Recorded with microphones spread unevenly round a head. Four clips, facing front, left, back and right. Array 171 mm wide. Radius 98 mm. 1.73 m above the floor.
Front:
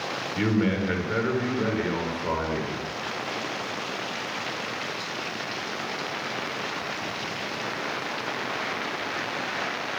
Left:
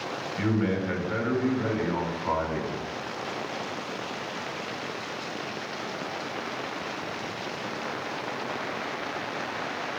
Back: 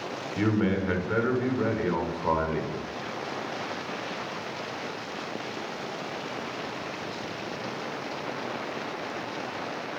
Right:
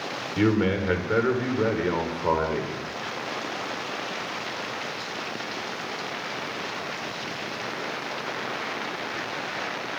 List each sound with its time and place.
0.4 s a man speaking: 95° right, 6.5 m; by 2.8 s 110° right, 7 m